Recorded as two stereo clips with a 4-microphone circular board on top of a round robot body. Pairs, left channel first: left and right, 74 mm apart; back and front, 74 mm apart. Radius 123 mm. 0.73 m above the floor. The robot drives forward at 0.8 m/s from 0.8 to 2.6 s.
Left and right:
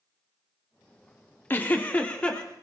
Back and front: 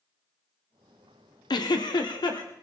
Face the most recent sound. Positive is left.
turn(degrees=165)